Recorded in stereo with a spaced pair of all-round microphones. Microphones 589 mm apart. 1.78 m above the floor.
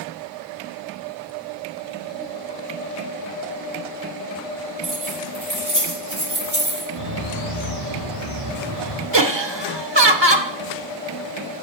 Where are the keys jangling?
35° right (ahead or behind), 7.5 m.